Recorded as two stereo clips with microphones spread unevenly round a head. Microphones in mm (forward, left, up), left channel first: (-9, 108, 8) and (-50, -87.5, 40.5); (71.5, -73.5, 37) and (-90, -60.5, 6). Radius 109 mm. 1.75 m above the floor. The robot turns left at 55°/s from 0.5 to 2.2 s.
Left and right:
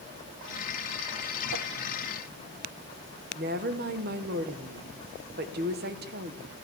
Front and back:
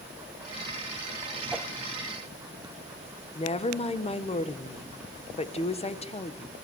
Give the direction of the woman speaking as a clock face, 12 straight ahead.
2 o'clock.